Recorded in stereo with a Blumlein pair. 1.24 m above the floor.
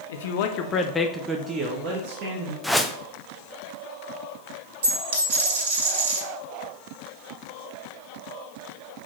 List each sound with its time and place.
0.1 s a man speaking: 60° left, 1.1 m; by 2.5 s 50° right, 1.8 m
2.6 s a whoosh: straight ahead, 0.6 m
4.8 s a dropped coin: 55° right, 2.5 m